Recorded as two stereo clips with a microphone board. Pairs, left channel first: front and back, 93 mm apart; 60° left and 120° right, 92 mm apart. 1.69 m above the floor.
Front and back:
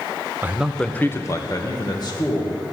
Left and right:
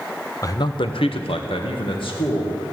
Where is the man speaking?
115° left, 0.7 m; by 2.7 s 35° left, 2.5 m.